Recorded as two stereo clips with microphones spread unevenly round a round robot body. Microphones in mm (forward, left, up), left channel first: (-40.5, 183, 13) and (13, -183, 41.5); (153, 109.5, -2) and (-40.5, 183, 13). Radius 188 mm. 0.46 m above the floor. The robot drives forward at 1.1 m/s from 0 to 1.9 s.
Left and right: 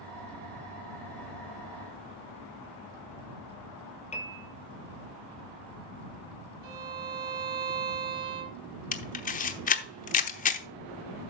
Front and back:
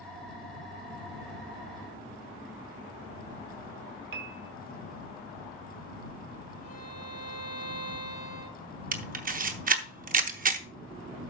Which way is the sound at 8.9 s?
145° left.